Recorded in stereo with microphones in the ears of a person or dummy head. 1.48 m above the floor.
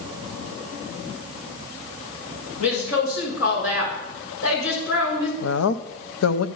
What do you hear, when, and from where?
2.6 s a woman speaking: 75° left (ahead or behind), 6.5 m
5.4 s a woman speaking: 85° left, 0.7 m